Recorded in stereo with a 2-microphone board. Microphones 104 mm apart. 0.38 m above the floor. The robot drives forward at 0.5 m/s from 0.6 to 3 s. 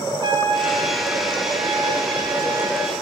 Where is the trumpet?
45° right (ahead or behind), 3 m; by 2.9 s 30° right (ahead or behind), 3.5 m.